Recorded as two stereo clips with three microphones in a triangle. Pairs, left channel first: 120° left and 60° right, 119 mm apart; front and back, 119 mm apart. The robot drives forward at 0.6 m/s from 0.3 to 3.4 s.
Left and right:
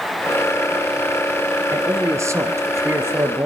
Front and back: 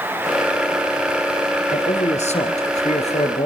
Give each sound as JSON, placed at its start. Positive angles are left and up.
{"t": 1.7, "sound": "a man speaking", "azimuth_deg": 5, "distance_m": 3.5}